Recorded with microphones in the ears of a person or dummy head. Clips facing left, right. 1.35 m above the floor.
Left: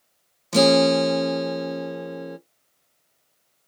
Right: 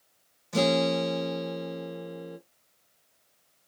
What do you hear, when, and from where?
0.5 s a guitar: 85° left, 0.6 m